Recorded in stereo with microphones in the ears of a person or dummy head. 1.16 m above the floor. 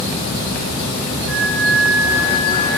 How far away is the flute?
About 8.5 m.